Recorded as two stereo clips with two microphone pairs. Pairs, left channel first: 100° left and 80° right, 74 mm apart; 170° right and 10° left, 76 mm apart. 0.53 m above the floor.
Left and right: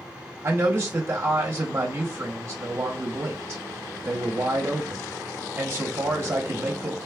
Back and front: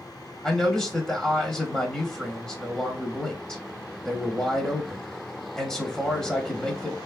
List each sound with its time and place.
0.4 s a man speaking: 95° right, 0.8 m